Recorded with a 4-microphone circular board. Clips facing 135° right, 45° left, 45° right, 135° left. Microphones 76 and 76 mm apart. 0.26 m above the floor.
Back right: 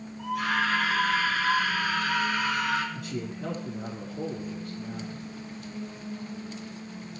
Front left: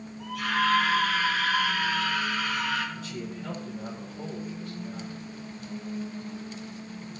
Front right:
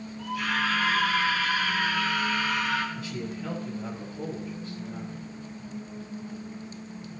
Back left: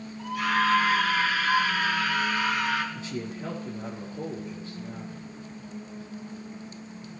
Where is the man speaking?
160° right, 6 m.